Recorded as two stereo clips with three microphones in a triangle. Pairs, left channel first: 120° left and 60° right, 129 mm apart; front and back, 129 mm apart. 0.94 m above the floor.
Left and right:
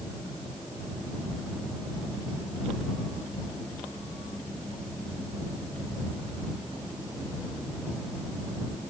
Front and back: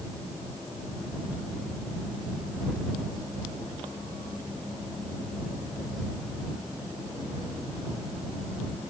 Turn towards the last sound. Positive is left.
No sound to turn to.